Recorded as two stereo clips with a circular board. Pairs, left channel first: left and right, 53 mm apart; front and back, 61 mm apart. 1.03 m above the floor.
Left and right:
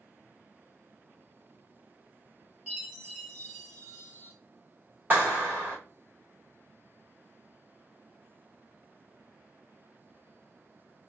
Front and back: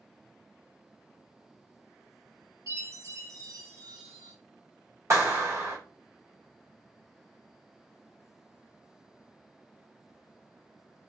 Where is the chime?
150° right, 1.4 m.